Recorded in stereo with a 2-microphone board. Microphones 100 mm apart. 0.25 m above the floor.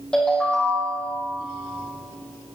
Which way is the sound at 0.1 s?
5° left (ahead or behind).